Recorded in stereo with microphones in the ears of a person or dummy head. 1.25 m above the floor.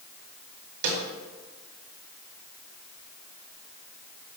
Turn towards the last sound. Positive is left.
turn(degrees=-60)  # may be behind; listen again after turning